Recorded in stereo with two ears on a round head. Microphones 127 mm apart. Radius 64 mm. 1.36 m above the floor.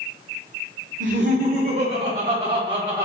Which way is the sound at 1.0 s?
60° right (ahead or behind).